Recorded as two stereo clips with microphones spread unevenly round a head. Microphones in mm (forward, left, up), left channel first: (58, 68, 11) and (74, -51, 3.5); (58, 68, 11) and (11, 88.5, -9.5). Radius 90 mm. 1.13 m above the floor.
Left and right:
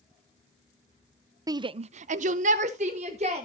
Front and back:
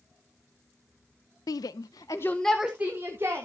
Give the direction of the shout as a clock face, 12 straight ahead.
1 o'clock.